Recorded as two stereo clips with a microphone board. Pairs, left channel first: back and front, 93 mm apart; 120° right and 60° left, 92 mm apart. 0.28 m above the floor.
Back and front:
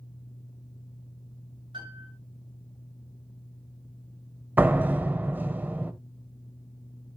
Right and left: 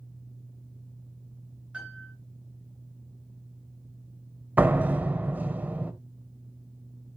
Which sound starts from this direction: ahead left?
A door slam, at 4.6 s.